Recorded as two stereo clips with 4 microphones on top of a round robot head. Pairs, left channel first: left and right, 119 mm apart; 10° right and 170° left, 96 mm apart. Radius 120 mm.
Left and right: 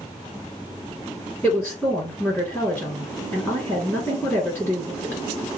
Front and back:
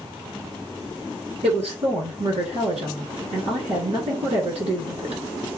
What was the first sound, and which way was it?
A woman speaking, 165° left.